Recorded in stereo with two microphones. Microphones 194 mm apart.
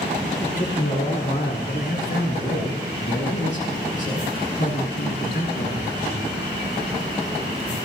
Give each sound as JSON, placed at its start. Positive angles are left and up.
{"t": 0.4, "sound": "a man speaking", "side_deg": 45, "distance_m": 5.5}